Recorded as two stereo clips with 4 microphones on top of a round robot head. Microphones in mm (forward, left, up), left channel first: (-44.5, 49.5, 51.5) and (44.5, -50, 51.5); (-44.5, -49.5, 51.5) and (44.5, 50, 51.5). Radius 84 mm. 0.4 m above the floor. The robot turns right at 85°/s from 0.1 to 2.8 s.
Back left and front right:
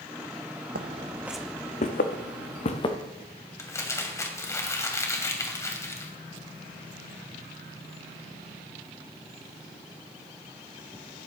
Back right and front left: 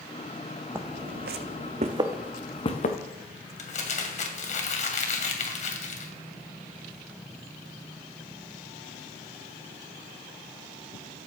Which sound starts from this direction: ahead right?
Footsteps, at 0.8 s.